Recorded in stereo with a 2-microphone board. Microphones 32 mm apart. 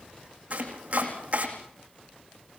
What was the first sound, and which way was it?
Chopping, 40° right (ahead or behind).